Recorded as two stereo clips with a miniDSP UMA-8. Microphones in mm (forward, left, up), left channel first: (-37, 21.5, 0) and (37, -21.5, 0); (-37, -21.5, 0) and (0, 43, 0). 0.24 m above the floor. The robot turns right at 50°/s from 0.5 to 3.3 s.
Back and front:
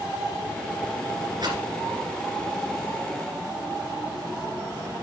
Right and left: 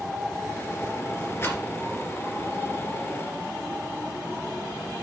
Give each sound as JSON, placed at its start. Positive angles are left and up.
{"t": 1.4, "sound": "a rattle", "azimuth_deg": -60, "distance_m": 3.0}